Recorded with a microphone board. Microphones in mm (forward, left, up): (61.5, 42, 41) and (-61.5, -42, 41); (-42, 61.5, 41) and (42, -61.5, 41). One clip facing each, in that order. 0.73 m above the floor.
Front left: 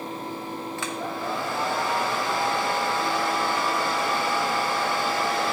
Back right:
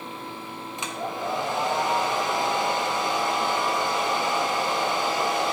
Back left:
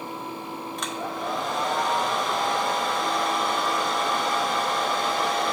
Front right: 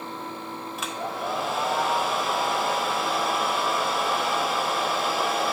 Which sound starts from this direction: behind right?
A hair dryer, at 0.8 s.